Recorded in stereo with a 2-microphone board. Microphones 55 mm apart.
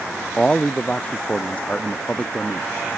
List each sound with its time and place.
0.4 s a man speaking: 20° left (ahead or behind); by 2.7 s 25° left (ahead or behind)